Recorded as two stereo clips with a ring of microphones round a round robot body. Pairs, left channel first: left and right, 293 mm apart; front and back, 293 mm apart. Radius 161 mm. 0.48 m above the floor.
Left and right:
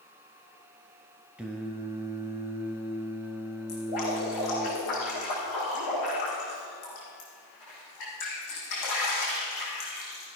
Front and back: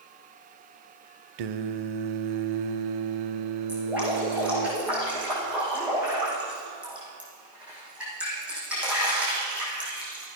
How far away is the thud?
No thud in this recording.